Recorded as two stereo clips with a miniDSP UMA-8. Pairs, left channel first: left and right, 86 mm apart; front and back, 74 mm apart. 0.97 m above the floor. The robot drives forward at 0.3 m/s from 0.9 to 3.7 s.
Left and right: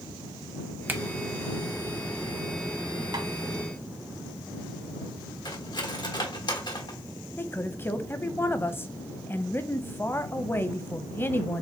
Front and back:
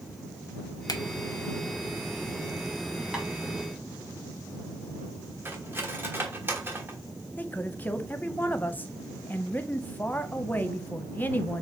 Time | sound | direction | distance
0.9 | a finger snap | 25° right | 0.7 m
3.1 | tapping | 100° right | 1.4 m
5.5 | cutlery clinking | 120° left | 1.2 m
7.4 | a woman speaking | 45° left | 0.6 m